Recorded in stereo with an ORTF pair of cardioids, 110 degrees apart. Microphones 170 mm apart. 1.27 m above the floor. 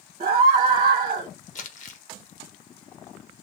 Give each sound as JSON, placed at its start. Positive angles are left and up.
{"t": 0.2, "sound": "a scream", "azimuth_deg": -40, "distance_m": 1.2}
{"t": 1.6, "sound": "crumpling", "azimuth_deg": 45, "distance_m": 1.1}